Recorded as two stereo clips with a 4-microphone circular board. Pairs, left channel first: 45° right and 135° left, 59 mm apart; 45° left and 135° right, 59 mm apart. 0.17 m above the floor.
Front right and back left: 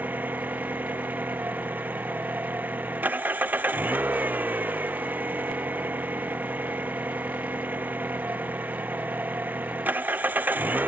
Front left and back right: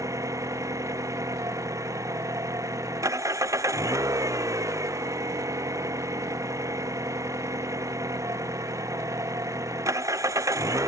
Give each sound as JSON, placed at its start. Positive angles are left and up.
{"t": 0.0, "sound": "an engine running", "azimuth_deg": -165}